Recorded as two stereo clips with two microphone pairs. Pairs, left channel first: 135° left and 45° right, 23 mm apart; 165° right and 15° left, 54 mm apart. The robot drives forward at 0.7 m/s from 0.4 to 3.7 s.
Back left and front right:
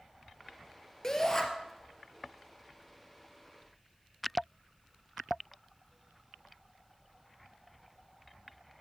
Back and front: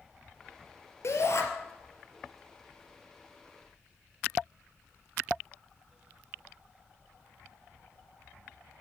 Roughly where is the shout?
Behind right.